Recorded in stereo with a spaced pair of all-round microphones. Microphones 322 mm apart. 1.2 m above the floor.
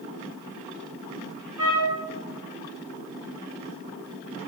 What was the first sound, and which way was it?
A trumpet, 70° right (ahead or behind).